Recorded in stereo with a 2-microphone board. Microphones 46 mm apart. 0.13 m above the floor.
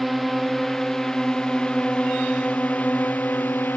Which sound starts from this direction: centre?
A drone, at 0.0 s.